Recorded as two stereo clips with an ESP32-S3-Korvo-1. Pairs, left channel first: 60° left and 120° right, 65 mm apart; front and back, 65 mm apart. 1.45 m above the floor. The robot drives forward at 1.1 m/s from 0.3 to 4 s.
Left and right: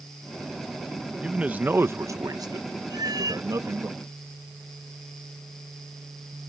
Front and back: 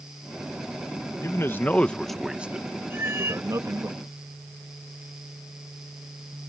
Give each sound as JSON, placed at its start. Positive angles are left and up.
{"t": 1.2, "sound": "a man speaking", "azimuth_deg": -45}
{"t": 2.9, "sound": "a cat meowing", "azimuth_deg": -125}